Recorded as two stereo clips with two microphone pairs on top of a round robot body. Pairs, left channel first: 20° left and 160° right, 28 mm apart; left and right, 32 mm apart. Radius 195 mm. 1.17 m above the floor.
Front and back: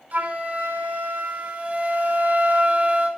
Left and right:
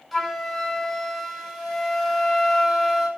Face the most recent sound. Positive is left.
turn(degrees=180)